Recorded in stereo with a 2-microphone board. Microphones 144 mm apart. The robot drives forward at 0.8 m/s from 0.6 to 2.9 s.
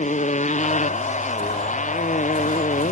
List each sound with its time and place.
0.0 s a motorcycle: 55° left (ahead or behind); by 2.9 s 60° left (ahead or behind)